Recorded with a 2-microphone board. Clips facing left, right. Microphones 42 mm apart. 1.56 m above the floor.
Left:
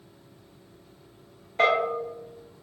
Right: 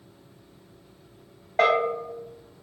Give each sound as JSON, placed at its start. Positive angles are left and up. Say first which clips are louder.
{"t": 1.6, "sound": "a bell", "louder": "right 1 dB", "side_deg": -90, "distance_m": 1.6}